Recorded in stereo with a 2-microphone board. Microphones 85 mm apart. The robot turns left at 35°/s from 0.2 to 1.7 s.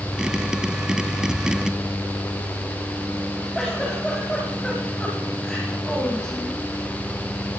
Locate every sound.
3.5 s a giggle: 5° left (ahead or behind), 8 m